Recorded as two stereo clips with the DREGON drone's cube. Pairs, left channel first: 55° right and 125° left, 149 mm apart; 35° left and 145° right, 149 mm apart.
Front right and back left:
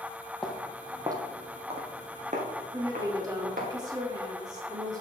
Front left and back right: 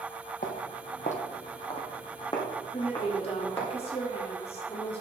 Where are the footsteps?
30° left, 1.1 m; by 3.7 s 110° left, 2.5 m.